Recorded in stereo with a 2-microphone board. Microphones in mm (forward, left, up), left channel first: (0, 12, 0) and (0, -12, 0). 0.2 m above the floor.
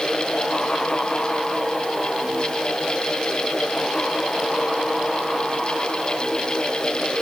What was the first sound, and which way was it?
Only background noise.